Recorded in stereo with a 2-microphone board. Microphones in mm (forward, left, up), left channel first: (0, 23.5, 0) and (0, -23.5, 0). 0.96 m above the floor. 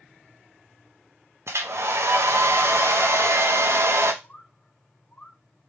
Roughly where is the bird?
Left.